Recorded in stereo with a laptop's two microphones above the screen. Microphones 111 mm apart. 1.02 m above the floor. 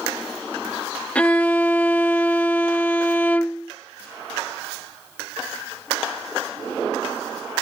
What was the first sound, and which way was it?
A violin, 10° left (ahead or behind).